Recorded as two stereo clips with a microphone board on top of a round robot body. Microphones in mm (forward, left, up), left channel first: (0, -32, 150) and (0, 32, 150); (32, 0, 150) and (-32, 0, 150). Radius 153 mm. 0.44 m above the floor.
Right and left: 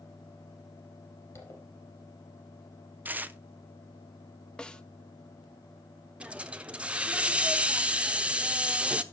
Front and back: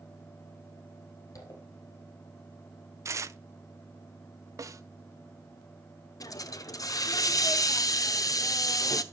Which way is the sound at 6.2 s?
20° left.